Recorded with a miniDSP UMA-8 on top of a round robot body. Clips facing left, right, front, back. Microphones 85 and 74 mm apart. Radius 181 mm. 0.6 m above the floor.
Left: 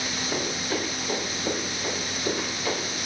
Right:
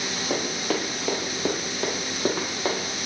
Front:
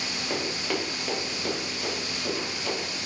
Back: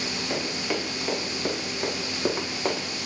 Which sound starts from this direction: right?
Running footsteps, at 0.3 s.